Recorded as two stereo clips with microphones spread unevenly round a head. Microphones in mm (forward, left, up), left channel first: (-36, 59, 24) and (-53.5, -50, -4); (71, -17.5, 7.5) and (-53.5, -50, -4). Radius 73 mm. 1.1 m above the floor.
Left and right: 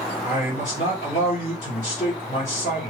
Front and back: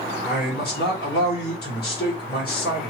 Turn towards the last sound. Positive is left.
turn(degrees=40)